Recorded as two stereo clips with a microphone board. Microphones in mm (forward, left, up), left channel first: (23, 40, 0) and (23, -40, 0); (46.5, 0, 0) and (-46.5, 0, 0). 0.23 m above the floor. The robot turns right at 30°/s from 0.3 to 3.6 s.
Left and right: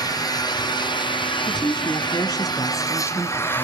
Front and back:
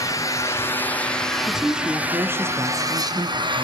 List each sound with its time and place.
0.0 s an engine running: 55° left, 2.5 m; by 3.6 s 155° left, 2.5 m
1.5 s a woman speaking: 95° left, 2.5 m; by 3.6 s 160° left, 2.5 m